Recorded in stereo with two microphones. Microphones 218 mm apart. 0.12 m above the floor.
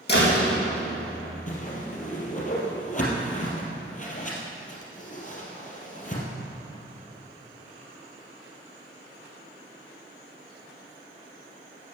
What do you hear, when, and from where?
0.1 s a door slam: 55° left (ahead or behind), 4.5 m
1.5 s a whoosh: 40° left (ahead or behind), 3 m